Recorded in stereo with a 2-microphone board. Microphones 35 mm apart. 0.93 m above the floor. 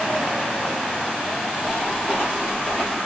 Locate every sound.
1.7 s footsteps: 25° left (ahead or behind), 6.5 m; by 3.0 s 20° left (ahead or behind), 7 m